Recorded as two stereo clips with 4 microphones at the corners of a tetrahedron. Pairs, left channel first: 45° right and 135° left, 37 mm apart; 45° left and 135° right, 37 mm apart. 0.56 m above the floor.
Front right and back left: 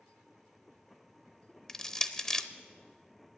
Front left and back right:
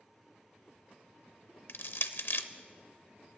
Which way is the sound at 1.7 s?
25° left.